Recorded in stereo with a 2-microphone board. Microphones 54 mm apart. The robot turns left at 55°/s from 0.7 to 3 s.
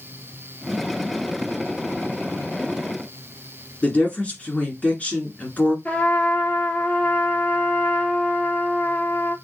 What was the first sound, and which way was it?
A woman speaking, 25° left (ahead or behind).